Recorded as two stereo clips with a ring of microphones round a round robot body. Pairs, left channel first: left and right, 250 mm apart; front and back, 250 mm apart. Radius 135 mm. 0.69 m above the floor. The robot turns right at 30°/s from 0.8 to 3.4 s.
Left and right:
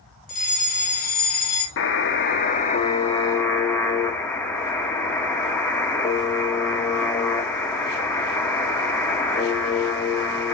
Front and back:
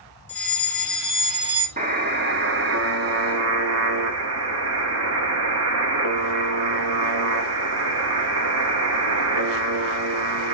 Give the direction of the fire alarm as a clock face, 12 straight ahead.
9 o'clock.